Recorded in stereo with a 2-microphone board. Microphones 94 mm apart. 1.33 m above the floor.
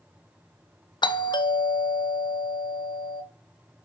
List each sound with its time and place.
1.0 s a doorbell: 60° left (ahead or behind), 0.5 m